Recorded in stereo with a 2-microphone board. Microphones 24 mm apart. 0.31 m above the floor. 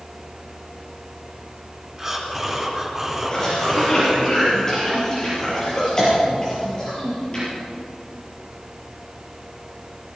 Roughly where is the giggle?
No giggle in this recording.